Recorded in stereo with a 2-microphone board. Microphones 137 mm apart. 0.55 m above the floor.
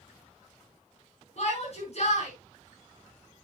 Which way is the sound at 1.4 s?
50° left (ahead or behind).